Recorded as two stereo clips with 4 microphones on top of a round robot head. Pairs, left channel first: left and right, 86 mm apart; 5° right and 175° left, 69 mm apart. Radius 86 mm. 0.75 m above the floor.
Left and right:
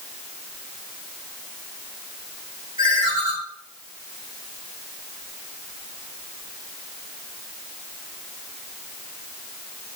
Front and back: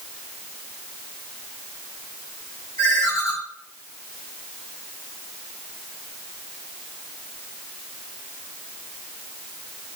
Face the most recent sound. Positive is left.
turn(degrees=-40)